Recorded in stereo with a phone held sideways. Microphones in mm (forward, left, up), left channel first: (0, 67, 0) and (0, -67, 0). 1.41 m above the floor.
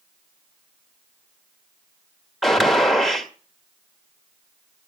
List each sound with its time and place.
2.4 s a gunshot: centre (ahead or behind), 1.8 m